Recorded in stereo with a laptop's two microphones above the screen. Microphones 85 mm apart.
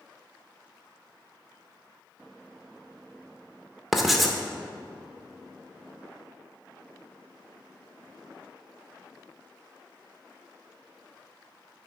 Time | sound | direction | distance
3.9 | writing | centre (ahead or behind) | 0.9 m